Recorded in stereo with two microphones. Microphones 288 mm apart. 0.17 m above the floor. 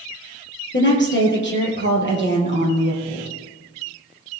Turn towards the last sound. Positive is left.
turn(degrees=45)  # may be behind; listen again after turning